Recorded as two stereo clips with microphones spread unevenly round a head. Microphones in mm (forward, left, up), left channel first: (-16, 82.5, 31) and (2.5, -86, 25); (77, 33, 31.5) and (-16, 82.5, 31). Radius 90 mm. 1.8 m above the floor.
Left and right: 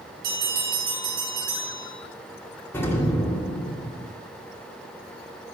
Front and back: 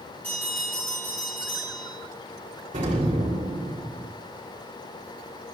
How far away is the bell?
About 6 m.